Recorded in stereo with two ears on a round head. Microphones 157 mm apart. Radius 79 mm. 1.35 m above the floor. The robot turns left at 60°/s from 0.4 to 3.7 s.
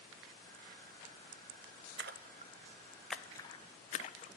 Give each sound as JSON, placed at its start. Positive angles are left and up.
{"t": 2.0, "sound": "a splash", "side_deg": -65, "distance_m": 0.6}